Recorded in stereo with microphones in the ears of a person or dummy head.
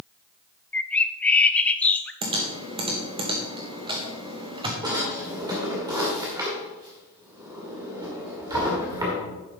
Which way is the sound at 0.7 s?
10° left (ahead or behind).